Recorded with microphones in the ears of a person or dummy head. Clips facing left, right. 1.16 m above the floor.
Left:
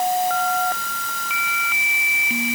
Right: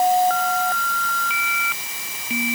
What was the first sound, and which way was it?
Only background noise.